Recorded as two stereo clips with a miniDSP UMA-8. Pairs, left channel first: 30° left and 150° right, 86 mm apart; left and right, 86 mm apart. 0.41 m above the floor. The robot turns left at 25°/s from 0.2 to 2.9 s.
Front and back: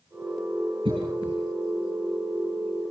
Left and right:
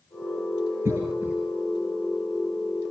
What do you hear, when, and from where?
0.8 s a cough: 150° right, 6.5 m; by 1.4 s 160° right, 6.5 m